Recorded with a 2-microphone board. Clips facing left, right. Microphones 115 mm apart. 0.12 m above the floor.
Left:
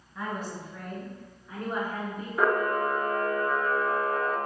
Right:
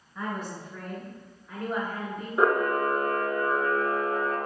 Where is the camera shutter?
25° right (ahead or behind), 0.6 m.